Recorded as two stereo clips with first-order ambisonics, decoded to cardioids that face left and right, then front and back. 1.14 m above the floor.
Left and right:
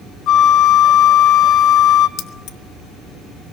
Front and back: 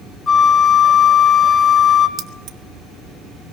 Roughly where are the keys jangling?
Behind left.